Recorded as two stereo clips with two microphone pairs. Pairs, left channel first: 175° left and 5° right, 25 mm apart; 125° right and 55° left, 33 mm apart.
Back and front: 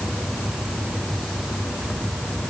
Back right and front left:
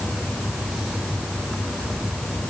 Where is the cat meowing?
I don't hear a cat meowing.